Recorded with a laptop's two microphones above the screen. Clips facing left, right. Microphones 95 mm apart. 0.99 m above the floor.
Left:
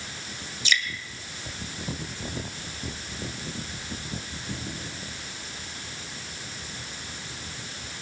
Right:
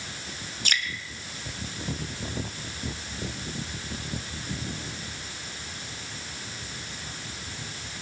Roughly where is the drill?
I don't hear a drill.